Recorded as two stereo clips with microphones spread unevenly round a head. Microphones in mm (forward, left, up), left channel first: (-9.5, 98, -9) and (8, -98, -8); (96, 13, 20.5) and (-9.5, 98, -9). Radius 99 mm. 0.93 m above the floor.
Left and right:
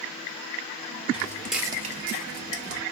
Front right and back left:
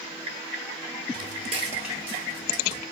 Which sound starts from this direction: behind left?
Footsteps, at 1.1 s.